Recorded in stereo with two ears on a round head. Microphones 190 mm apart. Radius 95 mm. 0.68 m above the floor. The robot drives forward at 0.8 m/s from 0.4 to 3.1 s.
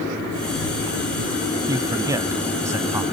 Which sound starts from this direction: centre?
A man speaking, at 1.7 s.